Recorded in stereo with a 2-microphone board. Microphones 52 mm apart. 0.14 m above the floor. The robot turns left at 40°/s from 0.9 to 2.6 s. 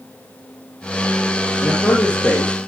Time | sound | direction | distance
1.6 | a man speaking | 70° left | 3.5 m